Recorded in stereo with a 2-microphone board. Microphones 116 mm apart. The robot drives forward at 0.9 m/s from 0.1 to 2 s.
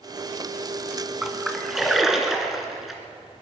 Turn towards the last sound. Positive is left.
turn(degrees=0)  # may be behind; listen again after turning